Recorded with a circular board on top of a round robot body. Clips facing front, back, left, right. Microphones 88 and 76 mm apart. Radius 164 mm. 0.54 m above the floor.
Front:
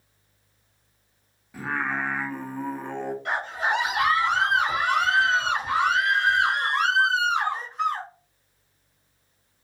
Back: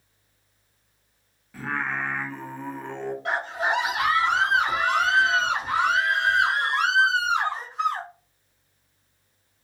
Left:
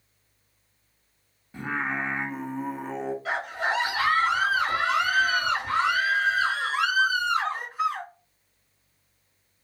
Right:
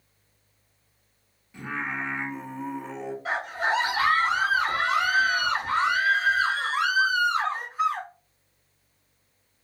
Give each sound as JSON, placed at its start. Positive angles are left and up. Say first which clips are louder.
{"t": 1.5, "sound": "singing", "louder": "front 1 dB, left 3 dB", "azimuth_deg": 70, "distance_m": 0.9}
{"t": 3.2, "sound": "a scream", "louder": "back 1 dB, right 3 dB", "azimuth_deg": -155, "distance_m": 1.2}